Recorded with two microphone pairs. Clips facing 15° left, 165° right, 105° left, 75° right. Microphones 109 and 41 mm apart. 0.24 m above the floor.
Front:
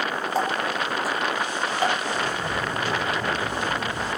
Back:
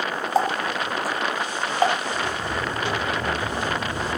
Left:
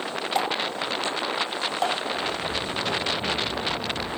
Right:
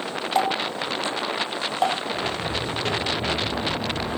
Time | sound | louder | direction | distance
0.3 | a running tap | back 3 dB, right 4 dB | 145° right | 1.1 m
2.1 | footsteps | even, right 1 dB | 95° right | 2 m